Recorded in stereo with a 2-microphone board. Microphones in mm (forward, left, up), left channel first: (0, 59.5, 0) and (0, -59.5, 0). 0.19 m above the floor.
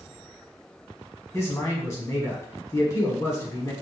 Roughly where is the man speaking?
Left.